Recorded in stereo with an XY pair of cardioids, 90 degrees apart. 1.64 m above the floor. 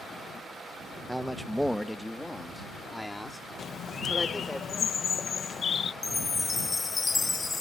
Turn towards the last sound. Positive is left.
turn(degrees=30)